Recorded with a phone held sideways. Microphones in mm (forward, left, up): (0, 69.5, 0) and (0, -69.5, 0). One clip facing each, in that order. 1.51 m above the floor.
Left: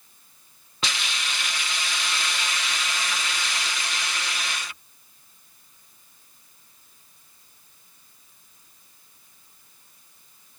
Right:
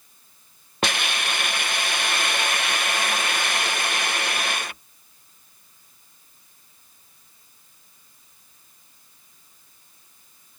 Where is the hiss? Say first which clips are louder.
Right 6 dB; 55° right (ahead or behind).